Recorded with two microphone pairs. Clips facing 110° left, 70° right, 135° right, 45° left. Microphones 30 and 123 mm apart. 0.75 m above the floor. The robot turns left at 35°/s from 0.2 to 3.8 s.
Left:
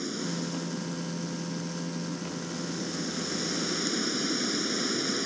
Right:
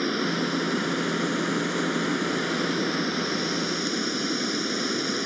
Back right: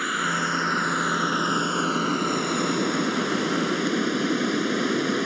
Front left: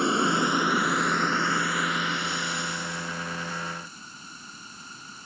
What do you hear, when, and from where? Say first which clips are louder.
0.0 s running water: right 8 dB, front left 4 dB; 20° right; by 5.3 s 145° right